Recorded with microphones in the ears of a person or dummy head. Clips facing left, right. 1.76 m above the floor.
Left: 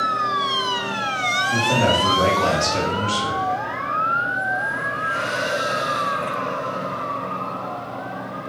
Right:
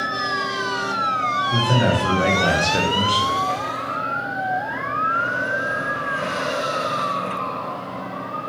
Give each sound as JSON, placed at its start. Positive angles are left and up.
{"t": 1.5, "sound": "a man speaking", "side_deg": -15, "distance_m": 1.5}